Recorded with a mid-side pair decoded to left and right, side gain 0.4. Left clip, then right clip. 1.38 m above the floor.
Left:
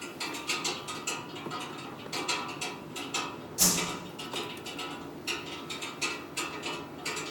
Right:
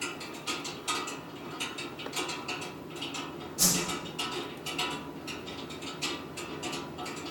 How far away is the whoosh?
About 1.4 m.